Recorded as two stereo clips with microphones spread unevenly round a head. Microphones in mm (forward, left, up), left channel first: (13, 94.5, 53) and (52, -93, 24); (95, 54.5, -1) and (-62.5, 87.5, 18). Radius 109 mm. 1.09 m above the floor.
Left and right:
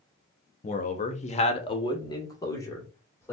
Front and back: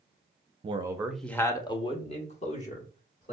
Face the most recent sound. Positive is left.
turn(degrees=20)